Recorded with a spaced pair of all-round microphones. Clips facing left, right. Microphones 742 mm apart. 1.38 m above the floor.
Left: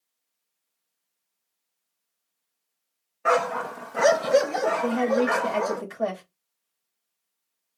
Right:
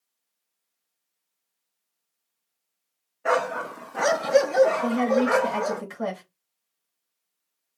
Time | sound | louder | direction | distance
3.2 | a dog barking | left 1 dB | 40° left (ahead or behind) | 0.9 m
4.8 | a woman speaking | right 1 dB | 15° right (ahead or behind) | 2.5 m